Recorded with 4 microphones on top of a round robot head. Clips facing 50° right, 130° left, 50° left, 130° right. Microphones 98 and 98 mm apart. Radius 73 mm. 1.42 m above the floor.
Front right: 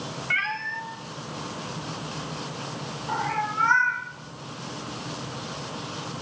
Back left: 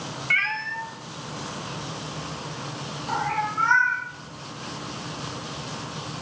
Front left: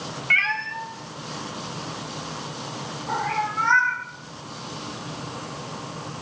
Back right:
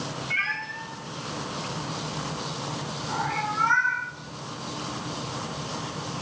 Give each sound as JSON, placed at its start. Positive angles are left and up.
{"t": 0.3, "sound": "a cat meowing", "azimuth_deg": 25, "distance_m": 0.9}